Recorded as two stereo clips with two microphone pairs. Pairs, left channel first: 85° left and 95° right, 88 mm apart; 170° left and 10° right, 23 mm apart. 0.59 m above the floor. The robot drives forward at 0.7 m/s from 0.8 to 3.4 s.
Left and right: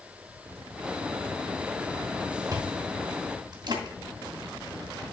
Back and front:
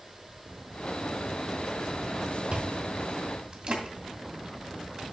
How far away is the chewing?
About 2.5 m.